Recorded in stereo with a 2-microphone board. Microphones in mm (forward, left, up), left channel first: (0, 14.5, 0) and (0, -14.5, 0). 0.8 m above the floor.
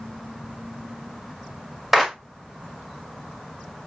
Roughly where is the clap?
Centre.